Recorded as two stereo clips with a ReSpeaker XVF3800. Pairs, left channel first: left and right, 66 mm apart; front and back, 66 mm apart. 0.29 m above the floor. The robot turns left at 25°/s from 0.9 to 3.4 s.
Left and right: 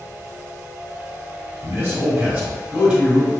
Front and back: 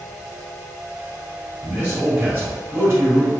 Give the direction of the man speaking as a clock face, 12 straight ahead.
4 o'clock.